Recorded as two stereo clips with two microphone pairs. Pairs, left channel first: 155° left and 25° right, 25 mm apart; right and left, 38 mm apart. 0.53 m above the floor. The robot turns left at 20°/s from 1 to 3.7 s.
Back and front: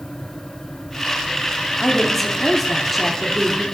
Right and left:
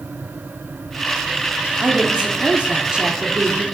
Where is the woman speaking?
90° left, 1.0 m; by 3.6 s 50° left, 1.0 m.